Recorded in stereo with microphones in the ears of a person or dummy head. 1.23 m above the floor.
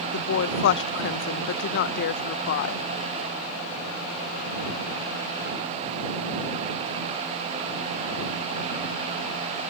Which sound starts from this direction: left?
A woman speaking, at 0.1 s.